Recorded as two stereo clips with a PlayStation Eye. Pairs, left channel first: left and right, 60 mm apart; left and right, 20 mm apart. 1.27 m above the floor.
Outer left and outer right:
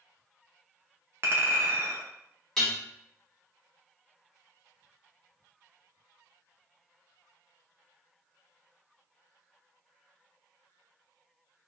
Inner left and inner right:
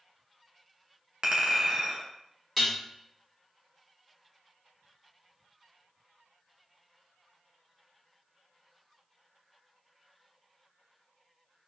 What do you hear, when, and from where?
1.2 s a clink: 40° right (ahead or behind), 0.5 m
2.6 s dishes clattering: 10° left (ahead or behind), 1.2 m